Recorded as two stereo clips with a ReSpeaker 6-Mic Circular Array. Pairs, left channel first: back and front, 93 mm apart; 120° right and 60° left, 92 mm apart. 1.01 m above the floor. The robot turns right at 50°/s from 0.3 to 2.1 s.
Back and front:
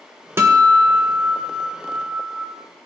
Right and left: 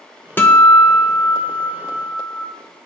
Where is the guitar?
55° right, 0.8 m; by 2.5 s 30° left, 0.8 m.